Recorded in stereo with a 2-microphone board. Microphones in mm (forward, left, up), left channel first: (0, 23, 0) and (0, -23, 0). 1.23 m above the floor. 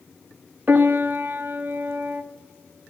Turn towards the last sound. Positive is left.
turn(degrees=-45)  # may be behind; listen again after turning